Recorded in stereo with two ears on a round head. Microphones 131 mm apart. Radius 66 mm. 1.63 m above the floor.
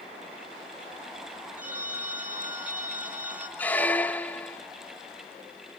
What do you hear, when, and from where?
1.6 s a phone ringing: 10° right (ahead or behind), 2 m
3.6 s a squeak: 10° left (ahead or behind), 0.6 m